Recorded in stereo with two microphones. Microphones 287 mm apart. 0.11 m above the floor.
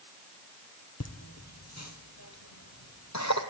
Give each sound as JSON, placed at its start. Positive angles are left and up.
{"t": 1.0, "sound": "laughter", "side_deg": 60, "distance_m": 3.0}